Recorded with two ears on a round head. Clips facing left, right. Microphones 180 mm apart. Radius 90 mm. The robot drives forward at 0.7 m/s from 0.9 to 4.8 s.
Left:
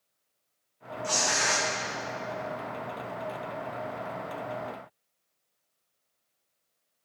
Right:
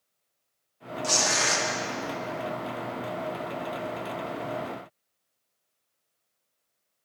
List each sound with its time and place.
1.0 s tearing paper: 55° right (ahead or behind), 1.6 m; by 1.6 s 50° right (ahead or behind), 1.8 m